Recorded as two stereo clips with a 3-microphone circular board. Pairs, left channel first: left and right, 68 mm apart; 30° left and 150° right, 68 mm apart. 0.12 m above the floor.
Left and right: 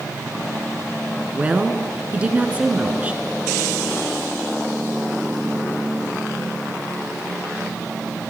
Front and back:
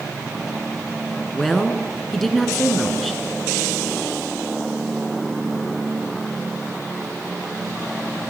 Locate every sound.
1.3 s a woman speaking: 50° right, 1.1 m